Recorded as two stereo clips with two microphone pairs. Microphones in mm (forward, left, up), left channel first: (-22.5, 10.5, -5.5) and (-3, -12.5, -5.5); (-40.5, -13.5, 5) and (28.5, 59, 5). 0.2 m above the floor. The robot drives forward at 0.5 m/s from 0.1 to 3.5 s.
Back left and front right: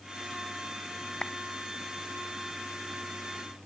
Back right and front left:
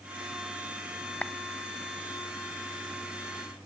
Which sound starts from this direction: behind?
A clap, at 1.2 s.